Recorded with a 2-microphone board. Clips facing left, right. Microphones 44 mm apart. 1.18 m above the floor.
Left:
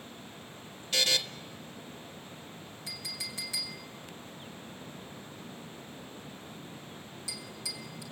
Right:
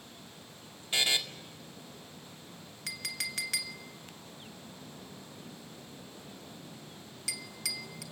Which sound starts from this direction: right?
A clink, at 2.9 s.